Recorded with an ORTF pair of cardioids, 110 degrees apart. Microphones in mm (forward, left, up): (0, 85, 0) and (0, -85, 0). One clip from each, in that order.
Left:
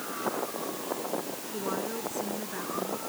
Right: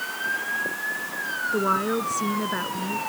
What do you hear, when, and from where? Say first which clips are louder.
1.5 s a woman speaking: right 9 dB; 65° right; by 3.0 s 60° right